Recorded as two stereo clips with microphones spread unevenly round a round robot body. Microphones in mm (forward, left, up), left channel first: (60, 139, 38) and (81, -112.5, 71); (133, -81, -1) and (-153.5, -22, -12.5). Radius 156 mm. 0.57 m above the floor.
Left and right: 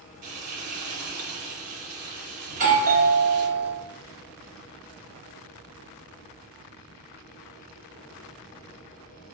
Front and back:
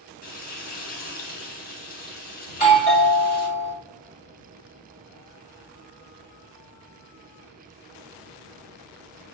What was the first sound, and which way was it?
Frying, 70° right.